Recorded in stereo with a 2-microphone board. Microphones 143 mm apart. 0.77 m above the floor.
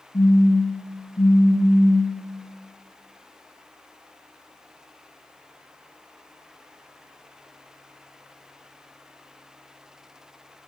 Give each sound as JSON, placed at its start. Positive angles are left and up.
{"t": 0.1, "sound": "a phone buzzing", "side_deg": 25, "distance_m": 3.5}